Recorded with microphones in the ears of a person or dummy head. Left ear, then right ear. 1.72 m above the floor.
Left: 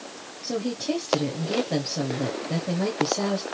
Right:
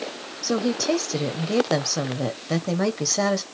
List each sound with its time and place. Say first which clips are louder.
0.4 s a woman speaking: right 5 dB; 55° right (ahead or behind), 1.0 m